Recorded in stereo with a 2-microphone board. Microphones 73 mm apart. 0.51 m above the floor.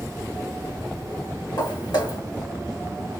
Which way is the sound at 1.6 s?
75° left (ahead or behind).